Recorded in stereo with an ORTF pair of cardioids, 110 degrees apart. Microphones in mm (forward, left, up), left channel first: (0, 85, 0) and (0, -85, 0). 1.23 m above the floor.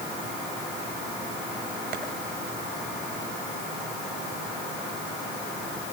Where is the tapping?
65° right, 6.5 m.